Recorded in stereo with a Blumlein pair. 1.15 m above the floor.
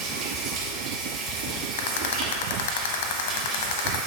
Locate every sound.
0.0 s running water: 35° right, 2 m
1.8 s a rattle: 55° left, 0.8 m